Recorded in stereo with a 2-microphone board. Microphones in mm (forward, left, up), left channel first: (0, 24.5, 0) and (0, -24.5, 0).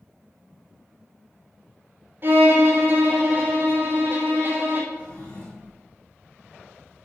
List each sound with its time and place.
2.2 s a violin: 40° right (ahead or behind), 2.5 m
4.9 s a drawer: 40° left (ahead or behind), 3.5 m